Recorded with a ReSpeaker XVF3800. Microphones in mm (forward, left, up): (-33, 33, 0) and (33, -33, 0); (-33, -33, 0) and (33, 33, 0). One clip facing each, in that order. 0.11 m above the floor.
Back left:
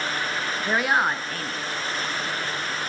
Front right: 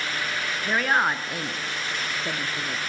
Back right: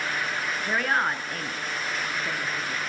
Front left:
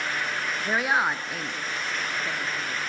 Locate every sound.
0.7 s a woman speaking: 100° left, 1.1 m; by 2.8 s 50° right, 1.6 m